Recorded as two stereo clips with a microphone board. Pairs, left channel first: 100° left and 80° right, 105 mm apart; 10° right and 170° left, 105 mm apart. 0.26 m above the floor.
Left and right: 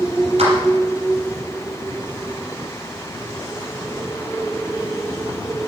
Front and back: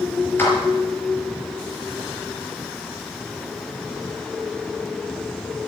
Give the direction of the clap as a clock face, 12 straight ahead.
3 o'clock.